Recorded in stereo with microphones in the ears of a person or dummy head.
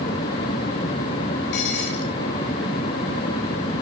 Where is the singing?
No singing in this recording.